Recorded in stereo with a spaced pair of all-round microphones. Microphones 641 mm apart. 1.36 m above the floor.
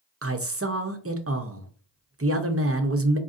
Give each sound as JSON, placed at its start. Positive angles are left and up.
{"t": 0.2, "sound": "a man speaking", "side_deg": -25, "distance_m": 0.5}